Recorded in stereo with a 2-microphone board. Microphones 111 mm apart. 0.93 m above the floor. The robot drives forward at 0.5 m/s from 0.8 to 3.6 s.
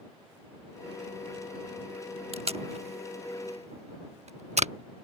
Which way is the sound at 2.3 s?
65° right (ahead or behind).